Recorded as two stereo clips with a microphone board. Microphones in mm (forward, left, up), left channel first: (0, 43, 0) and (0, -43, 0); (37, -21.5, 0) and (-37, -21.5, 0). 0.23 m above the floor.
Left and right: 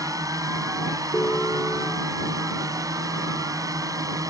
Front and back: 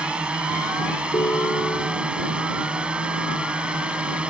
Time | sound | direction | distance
0.0 | a drone | 110° right | ?
1.1 | a ringtone | 20° left | ?